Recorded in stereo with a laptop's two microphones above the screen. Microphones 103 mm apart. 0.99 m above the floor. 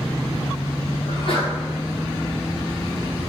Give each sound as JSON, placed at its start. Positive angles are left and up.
{"t": 1.1, "sound": "a sneeze", "side_deg": 60, "distance_m": 3.0}